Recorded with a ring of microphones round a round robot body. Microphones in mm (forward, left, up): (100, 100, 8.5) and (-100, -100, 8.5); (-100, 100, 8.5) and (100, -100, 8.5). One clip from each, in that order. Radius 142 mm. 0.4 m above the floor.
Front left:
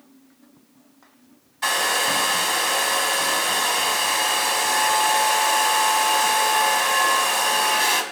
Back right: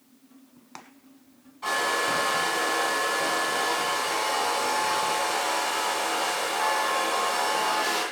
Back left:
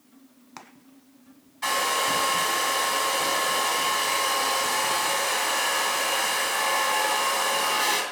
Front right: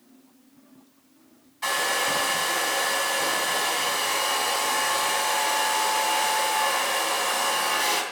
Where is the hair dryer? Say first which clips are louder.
Front left 4 dB, even; 45° left, 3 m.